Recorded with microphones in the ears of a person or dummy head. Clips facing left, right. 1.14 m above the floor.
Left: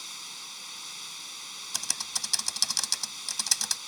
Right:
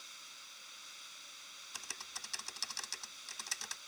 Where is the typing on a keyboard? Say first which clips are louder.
Left 9 dB; 80° left.